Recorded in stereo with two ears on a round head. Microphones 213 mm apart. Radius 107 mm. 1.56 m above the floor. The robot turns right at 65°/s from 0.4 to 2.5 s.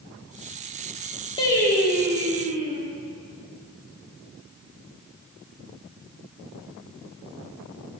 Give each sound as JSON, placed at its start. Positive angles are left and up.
{"t": 1.4, "sound": "singing", "azimuth_deg": 150, "distance_m": 1.5}